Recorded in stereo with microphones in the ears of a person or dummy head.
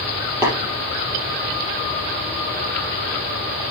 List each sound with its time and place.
0.4 s tapping: 15° right (ahead or behind), 6 m